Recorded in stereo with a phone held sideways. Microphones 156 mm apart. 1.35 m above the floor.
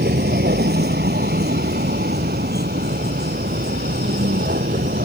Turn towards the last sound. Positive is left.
turn(degrees=-75)  # may be behind; listen again after turning